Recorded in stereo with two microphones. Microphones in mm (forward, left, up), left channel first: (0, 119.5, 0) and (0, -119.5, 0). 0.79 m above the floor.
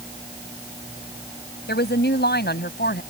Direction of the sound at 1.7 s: 45° left (ahead or behind).